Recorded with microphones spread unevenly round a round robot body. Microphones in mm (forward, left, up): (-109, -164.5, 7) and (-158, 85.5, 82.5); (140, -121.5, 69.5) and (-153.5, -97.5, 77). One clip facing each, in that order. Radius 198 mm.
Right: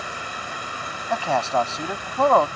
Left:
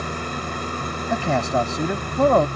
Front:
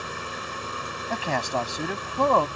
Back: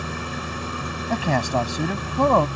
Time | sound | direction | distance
0.0 | an engine running | 135° left | ?
1.1 | a man speaking | 165° left | ?